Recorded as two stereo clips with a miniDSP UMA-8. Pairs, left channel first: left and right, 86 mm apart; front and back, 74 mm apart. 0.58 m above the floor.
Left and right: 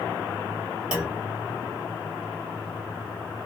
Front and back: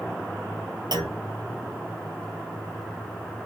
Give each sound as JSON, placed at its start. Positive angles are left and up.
{"t": 0.9, "sound": "a clunk", "azimuth_deg": -170, "distance_m": 1.2}